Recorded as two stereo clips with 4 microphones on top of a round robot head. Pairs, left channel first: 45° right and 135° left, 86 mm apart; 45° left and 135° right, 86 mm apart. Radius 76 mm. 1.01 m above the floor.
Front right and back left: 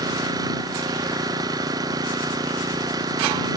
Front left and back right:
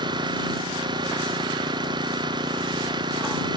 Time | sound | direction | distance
0.0 | an engine running | 175° right | ?